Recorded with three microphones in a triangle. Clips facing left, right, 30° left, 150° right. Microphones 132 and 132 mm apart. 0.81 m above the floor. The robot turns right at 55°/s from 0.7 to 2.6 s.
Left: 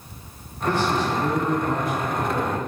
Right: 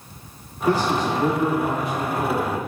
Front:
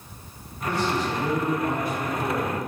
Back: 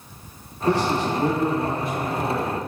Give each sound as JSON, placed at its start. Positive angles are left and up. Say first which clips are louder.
{"t": 0.7, "sound": "a man speaking", "louder": "right 2 dB, back 4 dB", "azimuth_deg": -150, "distance_m": 1.2}